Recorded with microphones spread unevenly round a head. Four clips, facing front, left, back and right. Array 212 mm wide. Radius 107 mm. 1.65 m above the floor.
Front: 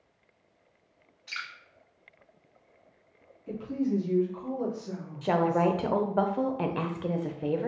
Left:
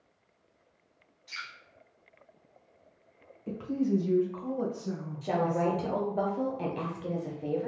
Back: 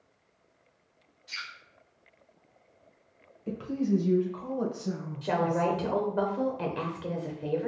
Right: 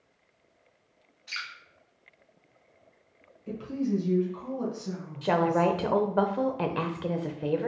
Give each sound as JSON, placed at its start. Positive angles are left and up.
{"t": 1.3, "sound": "dripping", "azimuth_deg": -40, "distance_m": 1.9}
{"t": 3.5, "sound": "a woman speaking", "azimuth_deg": 155, "distance_m": 1.6}
{"t": 5.2, "sound": "a woman speaking", "azimuth_deg": -60, "distance_m": 0.6}